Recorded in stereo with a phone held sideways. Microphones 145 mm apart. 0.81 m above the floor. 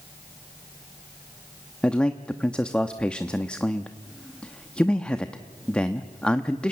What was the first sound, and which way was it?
A man speaking, 5° left (ahead or behind).